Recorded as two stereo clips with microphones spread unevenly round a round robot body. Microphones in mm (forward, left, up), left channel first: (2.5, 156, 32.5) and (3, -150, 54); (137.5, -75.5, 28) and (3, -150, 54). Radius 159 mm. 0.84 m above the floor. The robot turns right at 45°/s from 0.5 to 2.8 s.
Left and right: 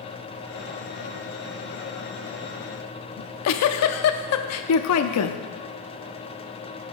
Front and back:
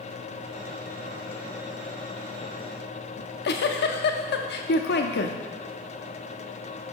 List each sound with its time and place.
3.2 s a giggle: 45° left, 0.5 m